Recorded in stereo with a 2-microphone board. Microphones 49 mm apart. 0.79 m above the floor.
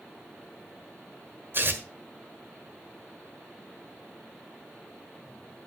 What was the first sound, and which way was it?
Tearing paper, 45° right (ahead or behind).